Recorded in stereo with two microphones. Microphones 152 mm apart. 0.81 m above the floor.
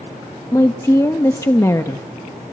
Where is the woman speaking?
20° left (ahead or behind), 0.9 m.